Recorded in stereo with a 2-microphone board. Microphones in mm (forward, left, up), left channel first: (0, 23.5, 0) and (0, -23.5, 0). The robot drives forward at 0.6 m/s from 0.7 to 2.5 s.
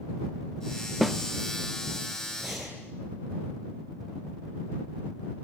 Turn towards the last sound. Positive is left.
turn(degrees=-5)  # may be behind; listen again after turning